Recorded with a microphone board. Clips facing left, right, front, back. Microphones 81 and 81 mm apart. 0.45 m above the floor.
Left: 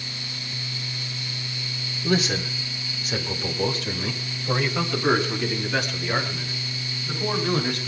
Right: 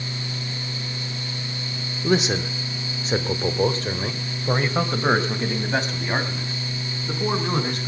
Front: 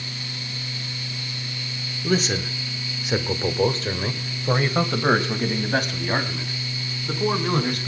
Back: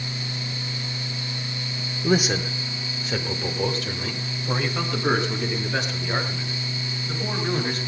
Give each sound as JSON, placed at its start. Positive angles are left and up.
{"t": 2.0, "sound": "a man speaking", "azimuth_deg": -130, "distance_m": 1.3}